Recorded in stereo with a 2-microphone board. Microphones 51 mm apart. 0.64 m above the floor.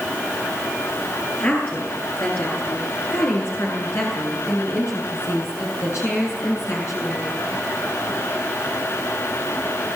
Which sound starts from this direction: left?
A woman speaking, at 1.4 s.